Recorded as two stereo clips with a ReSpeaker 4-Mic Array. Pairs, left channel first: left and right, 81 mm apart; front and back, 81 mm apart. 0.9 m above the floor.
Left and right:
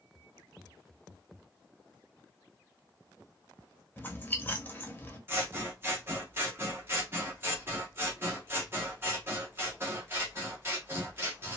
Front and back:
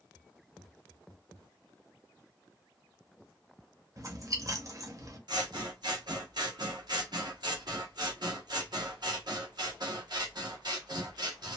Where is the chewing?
145° left, 0.9 m.